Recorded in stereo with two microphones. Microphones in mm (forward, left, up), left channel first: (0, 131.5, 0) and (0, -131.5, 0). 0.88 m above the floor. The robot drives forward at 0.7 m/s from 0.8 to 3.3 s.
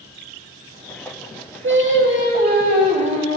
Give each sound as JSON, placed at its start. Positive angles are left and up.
{"t": 1.6, "sound": "singing", "side_deg": -50, "distance_m": 0.9}